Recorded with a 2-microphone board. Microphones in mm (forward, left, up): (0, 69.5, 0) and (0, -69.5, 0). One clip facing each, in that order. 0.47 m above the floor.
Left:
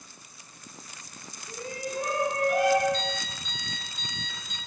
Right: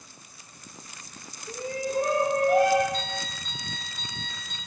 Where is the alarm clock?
50° right (ahead or behind), 5 m.